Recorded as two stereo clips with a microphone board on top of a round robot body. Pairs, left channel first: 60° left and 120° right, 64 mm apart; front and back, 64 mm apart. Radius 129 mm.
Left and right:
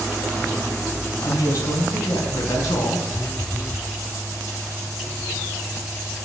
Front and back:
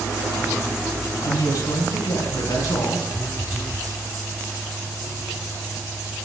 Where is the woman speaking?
25° left, 5 m.